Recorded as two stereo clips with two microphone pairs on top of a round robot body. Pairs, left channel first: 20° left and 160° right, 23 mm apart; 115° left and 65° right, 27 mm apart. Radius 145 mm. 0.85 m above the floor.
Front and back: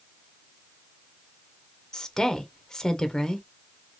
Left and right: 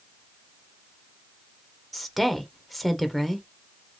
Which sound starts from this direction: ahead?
A woman speaking, at 1.9 s.